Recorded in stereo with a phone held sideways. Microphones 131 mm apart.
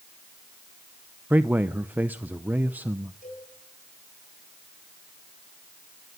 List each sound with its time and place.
1.3 s a man speaking: 15° right (ahead or behind), 0.6 m
3.2 s a cowbell: 80° left, 8 m